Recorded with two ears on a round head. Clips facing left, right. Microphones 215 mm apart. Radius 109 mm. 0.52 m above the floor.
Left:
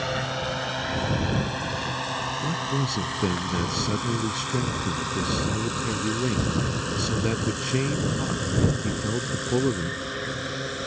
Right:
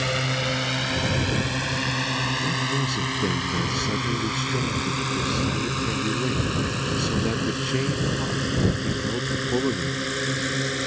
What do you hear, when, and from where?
0.0 s a drone: 35° right (ahead or behind)
2.4 s a man speaking: 5° left (ahead or behind)